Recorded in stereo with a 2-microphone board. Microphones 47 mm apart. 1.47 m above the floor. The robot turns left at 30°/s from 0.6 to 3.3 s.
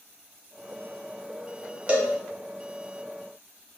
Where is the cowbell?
25° right (ahead or behind), 0.5 m; by 2.1 s 30° right (ahead or behind), 0.5 m.